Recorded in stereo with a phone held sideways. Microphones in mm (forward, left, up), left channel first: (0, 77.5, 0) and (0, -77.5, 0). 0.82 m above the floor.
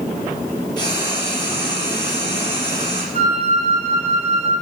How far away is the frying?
About 3.5 m.